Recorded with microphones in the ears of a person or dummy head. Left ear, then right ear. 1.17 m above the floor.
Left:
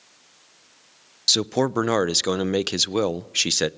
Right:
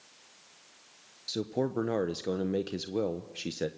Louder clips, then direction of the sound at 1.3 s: Left 12 dB; 50° left (ahead or behind).